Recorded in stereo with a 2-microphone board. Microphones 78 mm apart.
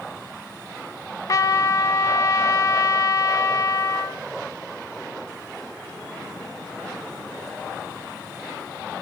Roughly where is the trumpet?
Left.